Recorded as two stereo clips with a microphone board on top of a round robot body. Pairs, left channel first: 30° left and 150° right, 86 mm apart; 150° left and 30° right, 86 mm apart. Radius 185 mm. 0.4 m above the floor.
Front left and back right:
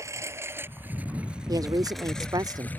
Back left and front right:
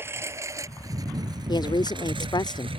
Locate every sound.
0.0 s a lawn mower: 95° right; by 2.8 s 40° right
1.5 s a woman speaking: 175° left